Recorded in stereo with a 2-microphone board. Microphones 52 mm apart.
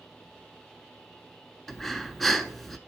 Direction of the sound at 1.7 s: 5° left (ahead or behind).